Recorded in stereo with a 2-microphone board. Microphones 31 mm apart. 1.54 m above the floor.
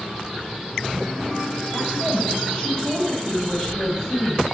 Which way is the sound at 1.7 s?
30° left (ahead or behind).